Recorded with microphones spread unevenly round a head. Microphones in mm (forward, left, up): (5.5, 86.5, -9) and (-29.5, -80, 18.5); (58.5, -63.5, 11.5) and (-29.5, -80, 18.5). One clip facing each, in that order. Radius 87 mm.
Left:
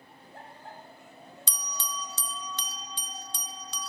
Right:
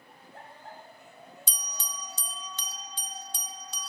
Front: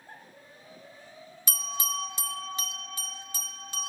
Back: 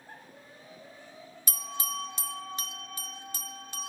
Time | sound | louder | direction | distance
1.5 | a bell | left 8 dB, front 2 dB | 40° left | 0.6 m